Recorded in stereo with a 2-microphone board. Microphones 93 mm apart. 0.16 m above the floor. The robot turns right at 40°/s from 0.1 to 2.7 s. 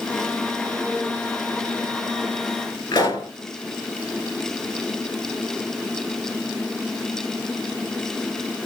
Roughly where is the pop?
Left.